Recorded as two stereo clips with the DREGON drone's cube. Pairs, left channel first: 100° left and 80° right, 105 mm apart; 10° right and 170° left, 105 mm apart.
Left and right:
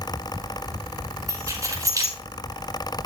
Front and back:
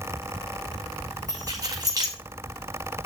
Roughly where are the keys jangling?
Behind right.